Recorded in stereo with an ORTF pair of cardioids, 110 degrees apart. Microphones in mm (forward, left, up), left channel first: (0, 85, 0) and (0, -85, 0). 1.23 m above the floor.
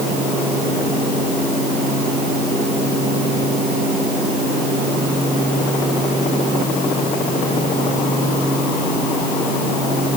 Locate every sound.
Only background noise.